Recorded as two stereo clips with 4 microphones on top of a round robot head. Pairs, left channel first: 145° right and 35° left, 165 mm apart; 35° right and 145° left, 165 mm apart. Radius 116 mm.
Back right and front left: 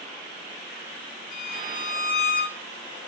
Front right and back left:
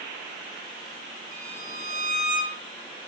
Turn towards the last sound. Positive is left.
turn(degrees=175)